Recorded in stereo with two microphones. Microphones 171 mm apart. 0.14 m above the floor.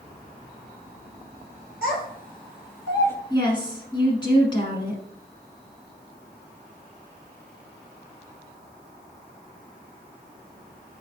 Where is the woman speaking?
25° left (ahead or behind), 1.3 m.